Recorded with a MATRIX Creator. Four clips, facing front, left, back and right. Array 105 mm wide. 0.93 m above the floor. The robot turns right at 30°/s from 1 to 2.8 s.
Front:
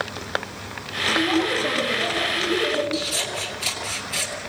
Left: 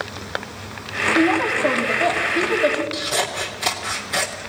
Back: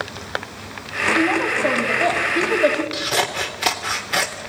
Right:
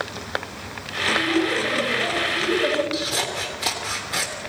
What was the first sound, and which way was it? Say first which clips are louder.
A woman speaking: left 4 dB, back 1 dB; 120° left.